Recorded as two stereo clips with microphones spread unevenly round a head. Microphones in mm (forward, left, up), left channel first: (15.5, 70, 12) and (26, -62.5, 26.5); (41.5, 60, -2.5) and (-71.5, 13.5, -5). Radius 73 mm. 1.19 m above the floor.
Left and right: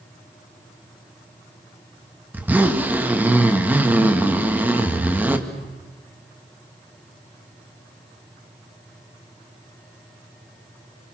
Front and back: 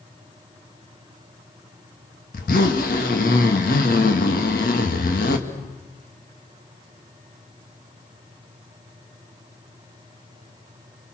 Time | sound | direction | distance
2.3 | a zipper | 5° right | 2.0 m